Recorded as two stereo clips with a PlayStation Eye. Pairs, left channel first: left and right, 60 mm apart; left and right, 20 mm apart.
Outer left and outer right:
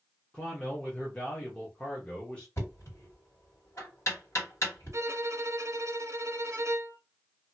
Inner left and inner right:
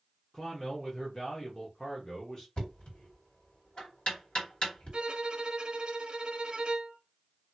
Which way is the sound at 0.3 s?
20° left (ahead or behind).